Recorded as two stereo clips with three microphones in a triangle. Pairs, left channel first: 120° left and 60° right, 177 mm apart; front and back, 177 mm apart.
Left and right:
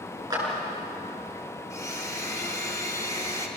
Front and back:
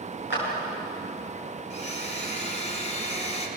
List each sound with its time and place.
0.3 s a clap: 5° left, 8 m
1.7 s a blender: 45° left, 3 m